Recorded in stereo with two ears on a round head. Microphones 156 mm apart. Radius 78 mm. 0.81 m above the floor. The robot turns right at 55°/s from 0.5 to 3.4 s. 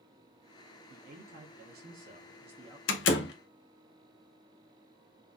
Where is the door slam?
80° left, 0.7 m; by 3.3 s 65° left (ahead or behind), 0.7 m.